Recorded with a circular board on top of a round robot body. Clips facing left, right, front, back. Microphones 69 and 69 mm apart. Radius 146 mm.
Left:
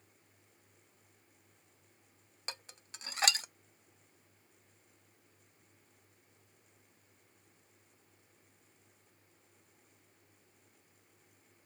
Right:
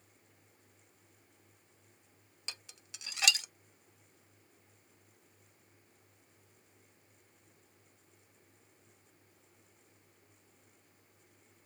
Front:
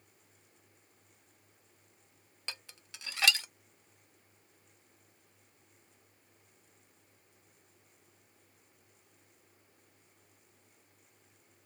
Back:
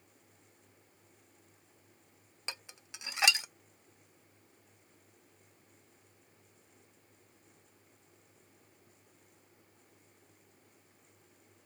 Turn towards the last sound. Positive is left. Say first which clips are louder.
# left 3 dB, back 1 dB
turn(degrees=115)